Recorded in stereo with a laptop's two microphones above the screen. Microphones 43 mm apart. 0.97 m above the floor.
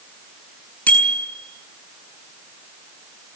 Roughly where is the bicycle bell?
Left.